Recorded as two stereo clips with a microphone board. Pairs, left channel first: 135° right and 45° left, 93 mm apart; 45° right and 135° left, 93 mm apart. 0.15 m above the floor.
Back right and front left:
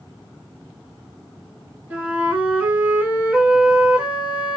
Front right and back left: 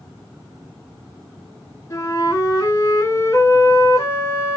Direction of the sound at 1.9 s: 15° right.